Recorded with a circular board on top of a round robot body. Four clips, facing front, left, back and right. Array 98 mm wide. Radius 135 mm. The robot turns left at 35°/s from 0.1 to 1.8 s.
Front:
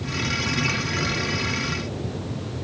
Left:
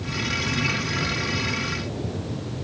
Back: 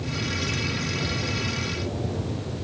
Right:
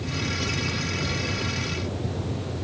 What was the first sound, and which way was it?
Only background noise.